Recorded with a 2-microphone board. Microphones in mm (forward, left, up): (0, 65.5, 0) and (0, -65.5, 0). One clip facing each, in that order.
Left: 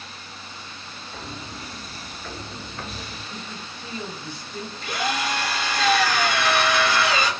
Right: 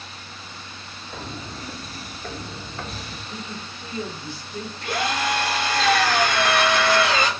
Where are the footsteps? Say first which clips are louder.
Right 3 dB; 60° right (ahead or behind), 0.9 m; by 3.2 s 10° right (ahead or behind), 1.5 m.